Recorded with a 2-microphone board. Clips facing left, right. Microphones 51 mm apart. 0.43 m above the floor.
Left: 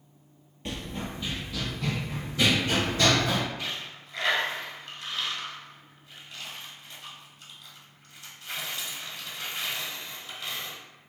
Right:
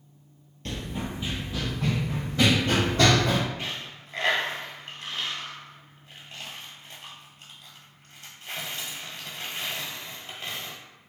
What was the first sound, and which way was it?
Running footsteps, 15° left (ahead or behind).